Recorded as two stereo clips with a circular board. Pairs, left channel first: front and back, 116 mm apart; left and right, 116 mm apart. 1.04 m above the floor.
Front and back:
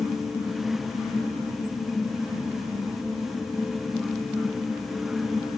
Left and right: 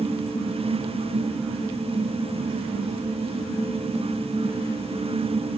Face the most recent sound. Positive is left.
No sound to turn to.